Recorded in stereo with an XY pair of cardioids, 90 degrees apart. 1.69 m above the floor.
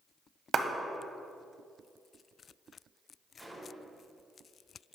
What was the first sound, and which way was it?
A clap, 50° right.